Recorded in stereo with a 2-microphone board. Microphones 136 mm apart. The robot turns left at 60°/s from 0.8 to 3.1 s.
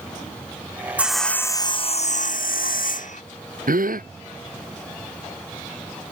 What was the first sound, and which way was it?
Sawing, 170° right.